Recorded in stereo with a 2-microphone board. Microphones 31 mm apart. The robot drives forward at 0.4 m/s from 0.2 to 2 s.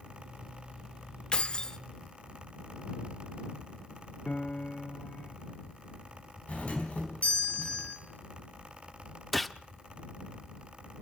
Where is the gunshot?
5° left (ahead or behind), 0.6 m.